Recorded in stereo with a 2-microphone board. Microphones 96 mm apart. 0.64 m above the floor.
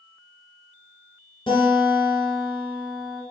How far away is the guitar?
About 1.3 m.